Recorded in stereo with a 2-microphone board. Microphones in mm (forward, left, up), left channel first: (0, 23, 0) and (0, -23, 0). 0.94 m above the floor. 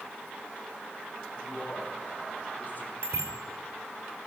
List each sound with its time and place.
1.4 s a man speaking: 45° left (ahead or behind), 3.5 m
3.0 s a bicycle bell: 80° right, 2.5 m